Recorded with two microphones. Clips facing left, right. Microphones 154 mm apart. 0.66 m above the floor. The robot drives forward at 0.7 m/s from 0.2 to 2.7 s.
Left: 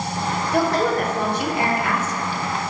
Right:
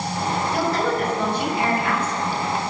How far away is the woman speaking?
About 3 m.